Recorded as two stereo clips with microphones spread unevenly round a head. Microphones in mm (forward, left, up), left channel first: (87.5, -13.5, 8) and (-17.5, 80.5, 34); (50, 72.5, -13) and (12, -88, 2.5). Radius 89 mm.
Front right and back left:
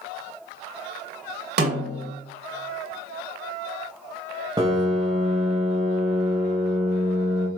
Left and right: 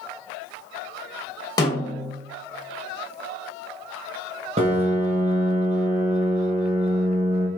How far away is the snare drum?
About 1.8 m.